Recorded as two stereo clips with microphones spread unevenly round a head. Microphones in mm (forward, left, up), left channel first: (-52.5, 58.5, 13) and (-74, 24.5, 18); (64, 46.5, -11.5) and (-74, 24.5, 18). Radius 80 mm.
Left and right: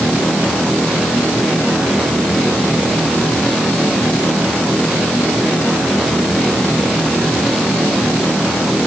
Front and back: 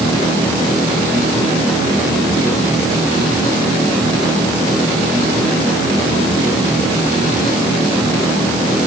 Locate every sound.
Only background noise.